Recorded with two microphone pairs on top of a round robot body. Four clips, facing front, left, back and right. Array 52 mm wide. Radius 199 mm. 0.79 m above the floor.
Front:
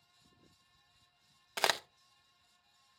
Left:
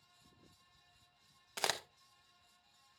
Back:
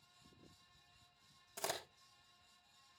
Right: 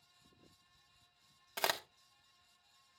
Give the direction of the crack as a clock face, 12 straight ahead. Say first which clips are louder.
Right 2 dB, front 11 dB; 12 o'clock.